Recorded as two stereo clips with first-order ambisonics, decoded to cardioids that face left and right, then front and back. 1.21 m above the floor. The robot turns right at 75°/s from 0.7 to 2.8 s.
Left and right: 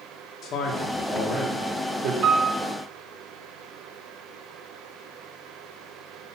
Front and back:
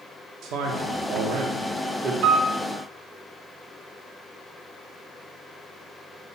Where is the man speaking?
145° left, 1.4 m; by 2.1 s 110° right, 1.4 m.